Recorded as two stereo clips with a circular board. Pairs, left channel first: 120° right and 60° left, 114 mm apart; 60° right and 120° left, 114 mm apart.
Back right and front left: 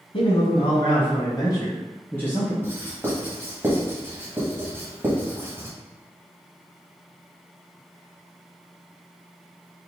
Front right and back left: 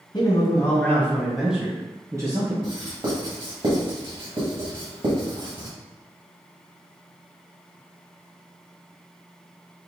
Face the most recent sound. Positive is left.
turn(degrees=120)